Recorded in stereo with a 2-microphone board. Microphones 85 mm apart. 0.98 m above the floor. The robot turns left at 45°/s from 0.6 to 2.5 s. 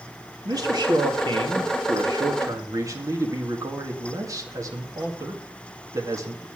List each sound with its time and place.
0.5 s a man speaking: 50° right, 2.0 m; by 6.5 s 140° right, 2.0 m